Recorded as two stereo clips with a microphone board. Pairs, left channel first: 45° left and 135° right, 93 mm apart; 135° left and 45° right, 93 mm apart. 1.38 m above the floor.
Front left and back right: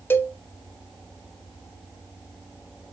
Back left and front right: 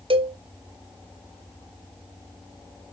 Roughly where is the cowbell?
Ahead right.